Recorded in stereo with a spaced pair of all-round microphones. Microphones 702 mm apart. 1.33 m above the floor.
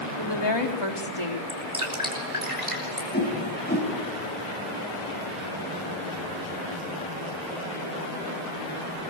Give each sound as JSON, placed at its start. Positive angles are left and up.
{"t": 0.2, "sound": "a woman speaking", "side_deg": 35, "distance_m": 3.5}
{"t": 1.5, "sound": "dripping", "side_deg": -50, "distance_m": 5.5}
{"t": 3.1, "sound": "a whoosh", "side_deg": 15, "distance_m": 4.0}